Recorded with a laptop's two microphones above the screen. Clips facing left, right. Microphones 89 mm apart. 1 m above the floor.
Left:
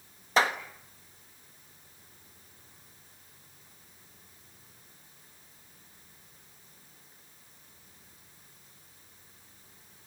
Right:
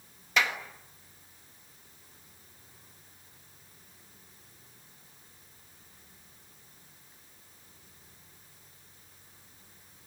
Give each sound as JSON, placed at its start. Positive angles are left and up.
{"t": 0.4, "sound": "a clap", "side_deg": 35, "distance_m": 1.4}